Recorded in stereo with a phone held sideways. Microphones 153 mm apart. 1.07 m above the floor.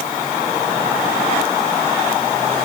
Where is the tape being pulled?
I don't hear tape being pulled.